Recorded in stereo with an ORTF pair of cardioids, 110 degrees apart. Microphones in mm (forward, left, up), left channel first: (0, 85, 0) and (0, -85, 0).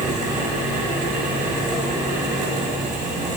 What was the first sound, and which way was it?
A fan, 50° right.